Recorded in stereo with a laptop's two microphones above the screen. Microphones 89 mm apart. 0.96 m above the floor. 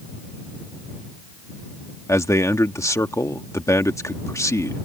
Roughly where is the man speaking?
Left.